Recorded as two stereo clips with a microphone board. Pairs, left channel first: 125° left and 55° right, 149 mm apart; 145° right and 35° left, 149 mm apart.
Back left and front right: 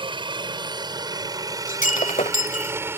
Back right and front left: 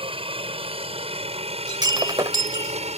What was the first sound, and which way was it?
A helicopter, 5° right.